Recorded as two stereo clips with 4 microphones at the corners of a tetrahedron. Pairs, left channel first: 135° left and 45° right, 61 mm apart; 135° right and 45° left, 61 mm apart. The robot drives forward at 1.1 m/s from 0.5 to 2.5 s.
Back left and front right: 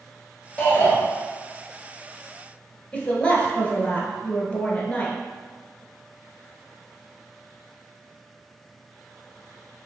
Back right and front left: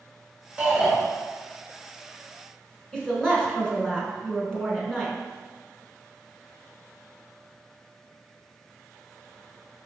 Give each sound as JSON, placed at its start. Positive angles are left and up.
{"t": 0.6, "sound": "a shout", "azimuth_deg": 85, "distance_m": 1.4}
{"t": 2.9, "sound": "a woman speaking", "azimuth_deg": 165, "distance_m": 1.2}